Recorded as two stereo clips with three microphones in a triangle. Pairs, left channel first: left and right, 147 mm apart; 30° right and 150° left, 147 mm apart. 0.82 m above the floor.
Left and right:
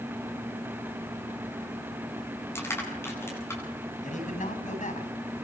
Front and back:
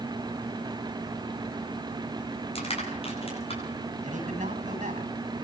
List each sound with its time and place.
2.5 s crushing: 15° left, 9.5 m
4.0 s a man speaking: 120° left, 6.5 m